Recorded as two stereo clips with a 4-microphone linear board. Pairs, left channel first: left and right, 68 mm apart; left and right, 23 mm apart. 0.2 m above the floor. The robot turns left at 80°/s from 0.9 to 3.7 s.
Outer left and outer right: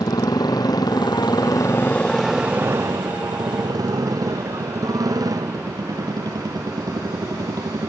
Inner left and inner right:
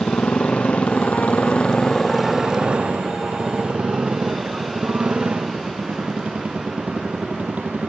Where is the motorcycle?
110° left; by 7.9 s 115° right.